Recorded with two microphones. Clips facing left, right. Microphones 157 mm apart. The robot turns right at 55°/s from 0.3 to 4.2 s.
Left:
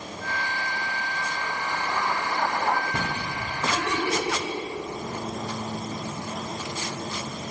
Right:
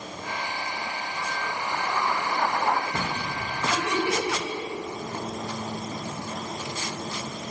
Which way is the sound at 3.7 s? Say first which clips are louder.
Right 1 dB; 5° right (ahead or behind).